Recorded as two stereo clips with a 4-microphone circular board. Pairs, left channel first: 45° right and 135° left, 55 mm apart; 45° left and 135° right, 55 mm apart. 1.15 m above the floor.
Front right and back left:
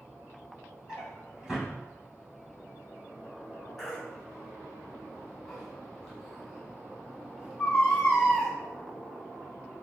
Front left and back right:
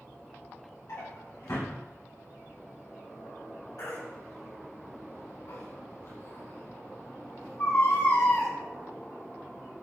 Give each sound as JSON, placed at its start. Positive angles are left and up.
{"t": 0.9, "sound": "a drawer", "azimuth_deg": 55, "distance_m": 5.0}
{"t": 3.8, "sound": "a baby crying", "azimuth_deg": 45, "distance_m": 4.5}